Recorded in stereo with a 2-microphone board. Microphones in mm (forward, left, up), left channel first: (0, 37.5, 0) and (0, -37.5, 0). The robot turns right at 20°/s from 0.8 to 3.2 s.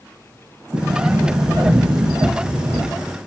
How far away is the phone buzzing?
No phone buzzing in this recording.